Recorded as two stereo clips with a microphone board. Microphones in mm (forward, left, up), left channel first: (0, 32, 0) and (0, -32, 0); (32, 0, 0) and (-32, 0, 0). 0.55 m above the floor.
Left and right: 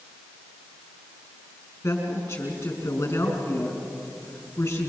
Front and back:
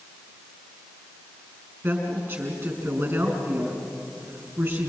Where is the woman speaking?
135° left, 6 m.